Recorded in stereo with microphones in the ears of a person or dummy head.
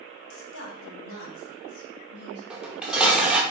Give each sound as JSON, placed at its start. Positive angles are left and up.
{"t": 0.3, "sound": "a woman speaking", "side_deg": 80, "distance_m": 1.5}
{"t": 2.5, "sound": "dishes clattering", "side_deg": -5, "distance_m": 0.9}